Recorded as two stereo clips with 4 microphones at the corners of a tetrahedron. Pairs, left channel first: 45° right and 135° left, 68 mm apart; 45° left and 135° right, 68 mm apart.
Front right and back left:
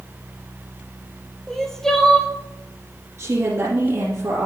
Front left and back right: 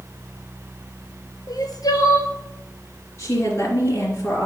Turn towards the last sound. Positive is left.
turn(degrees=85)